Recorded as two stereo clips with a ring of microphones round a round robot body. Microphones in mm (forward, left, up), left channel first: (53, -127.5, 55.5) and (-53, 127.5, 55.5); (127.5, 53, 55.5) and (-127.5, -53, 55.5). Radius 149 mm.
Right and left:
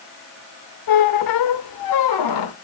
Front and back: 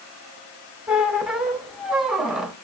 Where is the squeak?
70° right, 0.7 m.